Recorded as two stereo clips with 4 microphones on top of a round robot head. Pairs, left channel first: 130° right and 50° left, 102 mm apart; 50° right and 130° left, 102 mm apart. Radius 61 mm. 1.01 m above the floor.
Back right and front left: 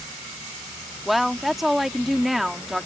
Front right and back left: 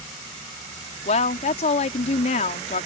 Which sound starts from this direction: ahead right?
A woman speaking, at 1.1 s.